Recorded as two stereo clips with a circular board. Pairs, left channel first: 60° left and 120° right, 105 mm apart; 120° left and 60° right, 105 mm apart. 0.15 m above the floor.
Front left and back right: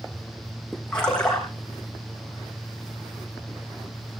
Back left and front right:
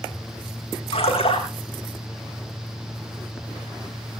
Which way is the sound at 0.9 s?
140° left.